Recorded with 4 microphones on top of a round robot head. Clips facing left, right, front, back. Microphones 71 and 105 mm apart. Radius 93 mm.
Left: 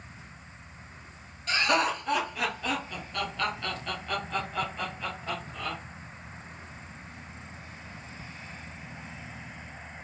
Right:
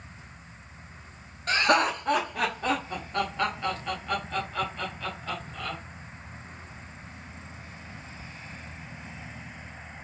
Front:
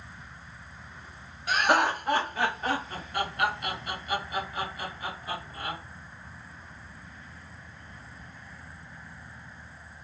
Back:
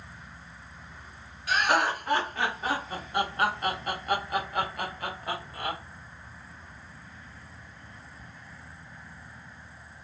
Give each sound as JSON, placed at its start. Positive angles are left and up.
{"t": 1.5, "sound": "laughter", "azimuth_deg": -65, "distance_m": 1.4}